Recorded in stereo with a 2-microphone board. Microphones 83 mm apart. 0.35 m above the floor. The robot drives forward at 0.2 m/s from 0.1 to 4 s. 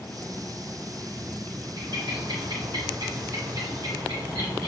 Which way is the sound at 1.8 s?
65° right (ahead or behind).